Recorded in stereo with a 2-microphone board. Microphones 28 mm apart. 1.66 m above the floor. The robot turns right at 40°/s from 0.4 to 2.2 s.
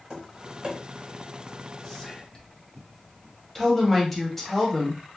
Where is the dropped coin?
No dropped coin in this recording.